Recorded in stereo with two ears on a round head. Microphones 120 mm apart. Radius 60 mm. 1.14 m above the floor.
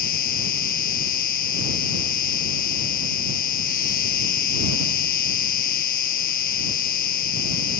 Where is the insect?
70° left (ahead or behind).